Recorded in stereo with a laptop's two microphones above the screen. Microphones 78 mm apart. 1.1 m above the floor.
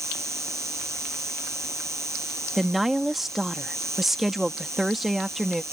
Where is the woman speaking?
5° right (ahead or behind).